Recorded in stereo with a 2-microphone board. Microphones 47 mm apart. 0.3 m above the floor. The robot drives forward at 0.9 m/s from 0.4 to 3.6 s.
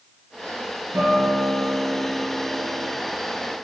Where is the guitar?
50° right (ahead or behind), 5.5 m; by 2.9 s 40° right (ahead or behind), 6.5 m.